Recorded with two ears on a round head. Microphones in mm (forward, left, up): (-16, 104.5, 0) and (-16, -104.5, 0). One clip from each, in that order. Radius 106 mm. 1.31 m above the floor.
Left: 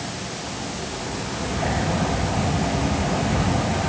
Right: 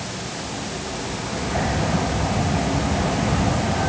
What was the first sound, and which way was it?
Only background noise.